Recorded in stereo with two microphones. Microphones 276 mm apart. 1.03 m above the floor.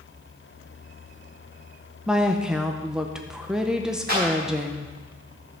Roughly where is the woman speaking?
Centre.